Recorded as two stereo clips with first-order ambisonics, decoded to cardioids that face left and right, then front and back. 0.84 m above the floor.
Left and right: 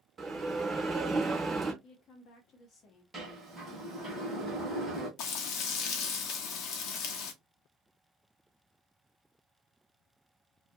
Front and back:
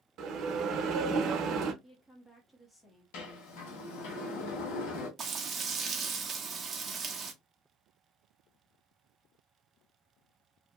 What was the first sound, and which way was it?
A bell, 160° right.